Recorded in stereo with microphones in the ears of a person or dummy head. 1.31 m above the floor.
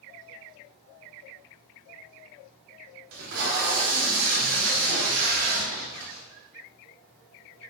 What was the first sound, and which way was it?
Tape being pulled, 85° right.